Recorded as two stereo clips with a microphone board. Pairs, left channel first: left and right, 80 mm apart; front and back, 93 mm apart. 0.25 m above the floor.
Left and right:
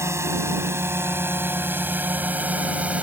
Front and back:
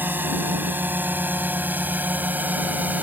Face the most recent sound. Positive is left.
turn(degrees=-135)